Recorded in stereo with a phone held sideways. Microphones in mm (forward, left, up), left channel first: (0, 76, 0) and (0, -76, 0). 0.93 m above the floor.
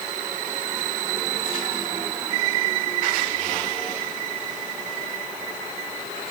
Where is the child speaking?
I don't hear a child speaking.